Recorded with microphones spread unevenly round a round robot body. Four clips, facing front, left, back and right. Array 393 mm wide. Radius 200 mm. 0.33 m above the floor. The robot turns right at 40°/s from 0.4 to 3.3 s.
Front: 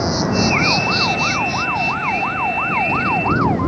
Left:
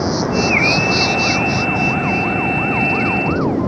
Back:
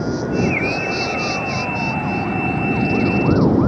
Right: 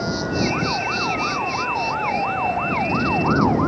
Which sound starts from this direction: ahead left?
An insect, at 0.0 s.